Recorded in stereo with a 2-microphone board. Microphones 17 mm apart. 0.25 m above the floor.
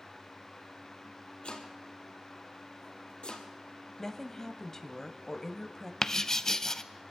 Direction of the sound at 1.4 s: 75° left (ahead or behind).